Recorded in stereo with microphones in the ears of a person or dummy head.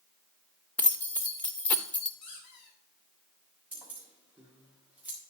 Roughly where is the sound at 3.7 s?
Centre.